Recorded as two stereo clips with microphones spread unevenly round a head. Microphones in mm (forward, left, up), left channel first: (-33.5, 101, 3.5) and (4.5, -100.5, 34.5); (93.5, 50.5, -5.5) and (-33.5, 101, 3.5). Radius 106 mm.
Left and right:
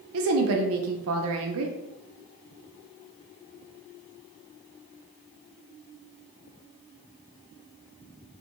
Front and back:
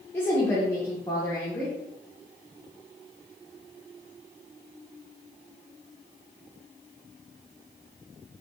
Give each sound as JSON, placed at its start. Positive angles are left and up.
{"t": 0.1, "sound": "a woman speaking", "azimuth_deg": -100, "distance_m": 0.5}